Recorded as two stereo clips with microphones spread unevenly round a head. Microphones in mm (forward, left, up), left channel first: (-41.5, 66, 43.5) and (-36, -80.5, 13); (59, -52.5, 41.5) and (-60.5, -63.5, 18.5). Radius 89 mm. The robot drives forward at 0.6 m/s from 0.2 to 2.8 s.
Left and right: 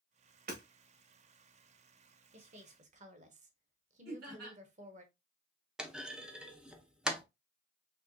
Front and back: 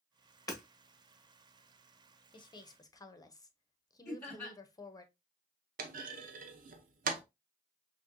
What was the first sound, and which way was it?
Hammering, 55° right.